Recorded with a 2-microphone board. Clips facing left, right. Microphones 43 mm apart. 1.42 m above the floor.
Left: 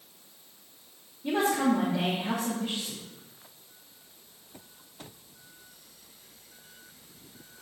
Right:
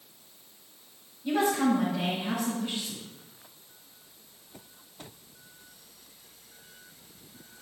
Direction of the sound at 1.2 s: 55° left (ahead or behind).